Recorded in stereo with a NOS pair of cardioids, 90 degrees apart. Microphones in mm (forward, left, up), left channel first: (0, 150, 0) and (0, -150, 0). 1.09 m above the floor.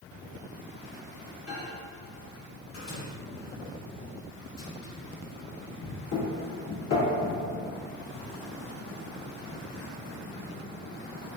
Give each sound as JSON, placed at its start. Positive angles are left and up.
{"t": 1.5, "sound": "a microwave", "azimuth_deg": 50, "distance_m": 1.3}